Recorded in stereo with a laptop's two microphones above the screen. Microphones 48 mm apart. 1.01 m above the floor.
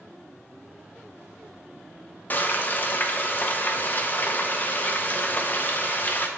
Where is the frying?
35° left (ahead or behind), 0.8 m.